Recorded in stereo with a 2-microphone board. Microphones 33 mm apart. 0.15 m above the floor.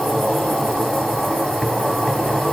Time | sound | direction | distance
0.0 | an insect | 10° left (ahead or behind) | 4 m